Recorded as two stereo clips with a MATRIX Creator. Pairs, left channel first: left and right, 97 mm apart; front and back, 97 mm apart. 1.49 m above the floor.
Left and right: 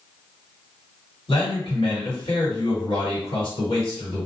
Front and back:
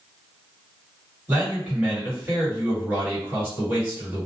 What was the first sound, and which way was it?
A man speaking, 110° left.